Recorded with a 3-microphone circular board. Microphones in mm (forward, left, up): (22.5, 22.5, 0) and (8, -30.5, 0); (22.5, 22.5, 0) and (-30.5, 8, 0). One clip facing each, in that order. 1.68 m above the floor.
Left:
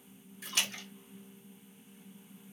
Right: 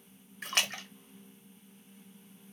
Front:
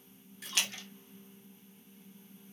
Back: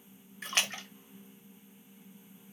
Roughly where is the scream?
No scream in this recording.